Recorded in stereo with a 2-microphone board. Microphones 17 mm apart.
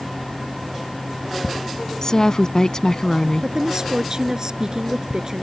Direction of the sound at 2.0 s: 45° left (ahead or behind).